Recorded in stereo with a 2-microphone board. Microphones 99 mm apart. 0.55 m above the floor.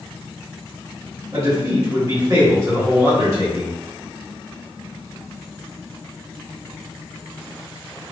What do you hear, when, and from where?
1.3 s a man speaking: 35° right (ahead or behind), 1.3 m